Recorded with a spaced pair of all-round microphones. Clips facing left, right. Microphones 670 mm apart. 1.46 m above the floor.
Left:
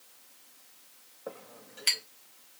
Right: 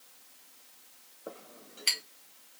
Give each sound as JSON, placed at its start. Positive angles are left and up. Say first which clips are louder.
{"t": 1.3, "sound": "a clink", "louder": "left 2 dB", "side_deg": 30, "distance_m": 0.5}